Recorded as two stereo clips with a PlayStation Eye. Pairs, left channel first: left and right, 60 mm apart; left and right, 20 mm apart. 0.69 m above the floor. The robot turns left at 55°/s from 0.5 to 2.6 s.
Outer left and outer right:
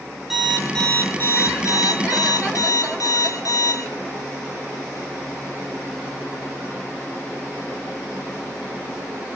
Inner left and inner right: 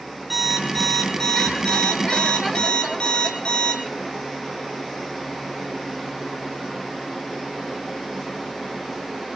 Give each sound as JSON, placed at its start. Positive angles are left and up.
{"t": 0.3, "sound": "an alarm clock", "azimuth_deg": -175, "distance_m": 4.5}